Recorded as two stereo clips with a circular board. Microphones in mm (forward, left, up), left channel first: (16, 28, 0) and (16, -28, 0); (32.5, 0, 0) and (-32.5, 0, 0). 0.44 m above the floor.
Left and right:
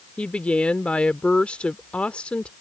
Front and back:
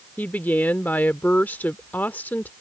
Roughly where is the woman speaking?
Ahead left.